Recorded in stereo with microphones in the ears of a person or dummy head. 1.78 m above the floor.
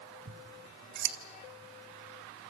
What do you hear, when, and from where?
0.3 s scissors: 55° right (ahead or behind), 0.8 m